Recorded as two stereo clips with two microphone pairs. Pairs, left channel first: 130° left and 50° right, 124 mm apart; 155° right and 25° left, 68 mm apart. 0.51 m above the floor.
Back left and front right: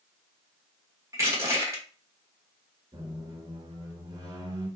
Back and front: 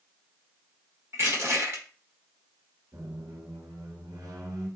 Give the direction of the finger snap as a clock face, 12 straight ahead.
I don't hear a finger snap.